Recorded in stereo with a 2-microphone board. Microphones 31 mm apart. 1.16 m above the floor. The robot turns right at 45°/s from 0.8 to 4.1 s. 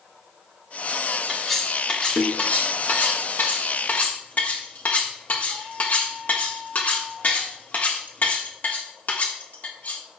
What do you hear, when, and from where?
1.3 s cutlery clinking: centre (ahead or behind), 1.5 m; by 10.0 s 50° left (ahead or behind), 1.5 m